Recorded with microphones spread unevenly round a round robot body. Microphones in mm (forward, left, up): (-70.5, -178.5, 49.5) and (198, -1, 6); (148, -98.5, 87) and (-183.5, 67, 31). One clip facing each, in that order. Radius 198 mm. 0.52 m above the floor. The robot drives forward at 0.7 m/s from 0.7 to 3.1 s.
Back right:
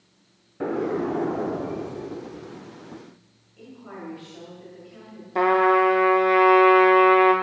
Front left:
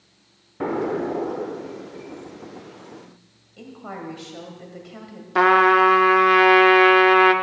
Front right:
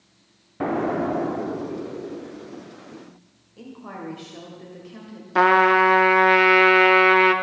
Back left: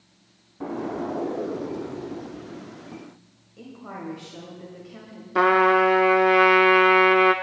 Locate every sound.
0.6 s an explosion: 45° right, 0.7 m; by 3.1 s 160° right, 1.3 m
3.6 s a woman speaking: 60° left, 2 m
5.3 s a trumpet: 55° left, 0.9 m